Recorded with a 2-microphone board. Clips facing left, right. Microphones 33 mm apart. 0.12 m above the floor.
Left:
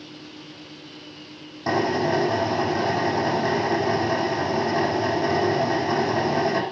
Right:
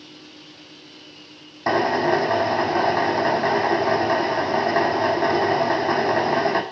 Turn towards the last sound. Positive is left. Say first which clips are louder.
# right 3 dB
turn(degrees=-30)  # may be behind; listen again after turning